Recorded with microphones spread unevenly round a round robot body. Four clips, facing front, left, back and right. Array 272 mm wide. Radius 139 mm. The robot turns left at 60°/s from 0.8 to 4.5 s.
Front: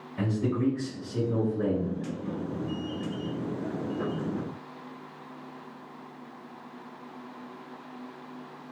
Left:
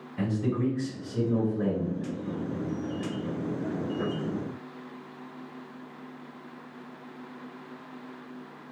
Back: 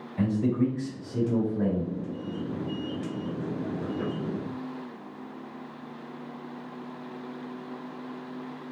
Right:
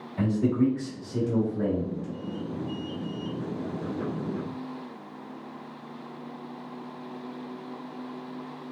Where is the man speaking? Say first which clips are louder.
Right 4 dB, back 3 dB; 100° right, 1.4 m; by 1.9 s 170° right, 1.4 m.